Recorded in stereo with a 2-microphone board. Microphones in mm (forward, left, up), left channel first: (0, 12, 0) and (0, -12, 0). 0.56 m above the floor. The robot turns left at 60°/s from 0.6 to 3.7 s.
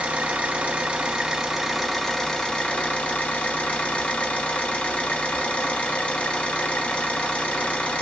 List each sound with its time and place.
0.0 s an engine running: 105° right, 0.8 m; by 8.0 s 70° left, 0.8 m